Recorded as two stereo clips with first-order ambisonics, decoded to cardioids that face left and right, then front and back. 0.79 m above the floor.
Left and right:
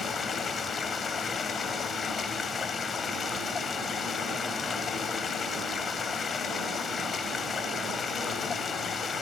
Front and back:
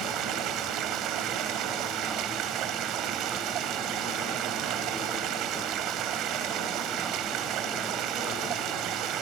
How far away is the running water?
About 0.9 m.